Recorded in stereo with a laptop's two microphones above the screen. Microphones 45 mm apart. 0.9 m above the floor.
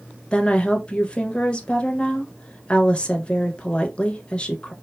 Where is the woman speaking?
25° left (ahead or behind), 0.5 m.